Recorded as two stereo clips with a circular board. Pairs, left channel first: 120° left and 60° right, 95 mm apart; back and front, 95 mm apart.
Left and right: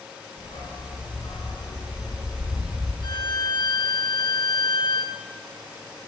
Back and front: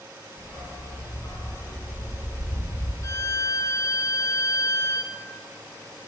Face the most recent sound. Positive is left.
turn(degrees=135)